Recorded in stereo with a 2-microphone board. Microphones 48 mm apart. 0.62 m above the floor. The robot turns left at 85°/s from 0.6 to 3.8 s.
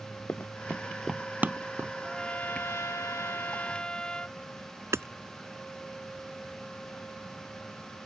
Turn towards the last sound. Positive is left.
turn(degrees=-75)  # may be behind; listen again after turning